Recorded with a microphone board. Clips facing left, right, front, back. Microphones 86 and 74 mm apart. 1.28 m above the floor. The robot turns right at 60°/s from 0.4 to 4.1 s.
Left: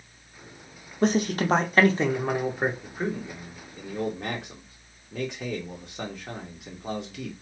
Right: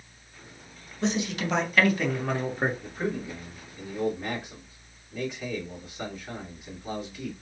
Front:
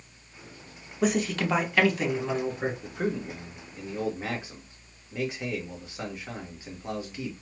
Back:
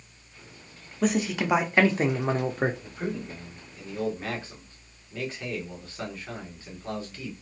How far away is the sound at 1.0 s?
About 0.6 m.